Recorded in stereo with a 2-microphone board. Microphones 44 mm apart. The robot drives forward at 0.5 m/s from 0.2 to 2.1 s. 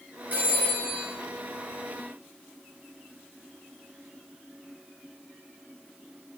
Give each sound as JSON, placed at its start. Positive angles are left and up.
{"t": 0.3, "sound": "a phone ringing", "side_deg": -40, "distance_m": 3.5}